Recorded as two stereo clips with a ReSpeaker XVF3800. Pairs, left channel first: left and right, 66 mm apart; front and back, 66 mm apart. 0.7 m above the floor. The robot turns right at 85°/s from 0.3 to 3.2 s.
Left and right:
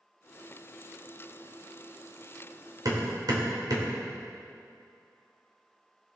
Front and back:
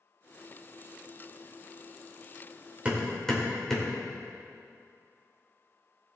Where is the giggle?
I don't hear a giggle.